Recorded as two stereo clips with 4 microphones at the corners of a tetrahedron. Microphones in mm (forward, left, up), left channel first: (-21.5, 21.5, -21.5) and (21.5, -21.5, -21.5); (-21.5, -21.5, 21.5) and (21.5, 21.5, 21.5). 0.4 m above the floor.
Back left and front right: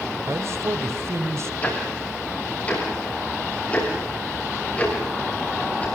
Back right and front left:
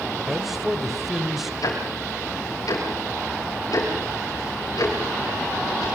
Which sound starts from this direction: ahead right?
A man speaking, at 0.3 s.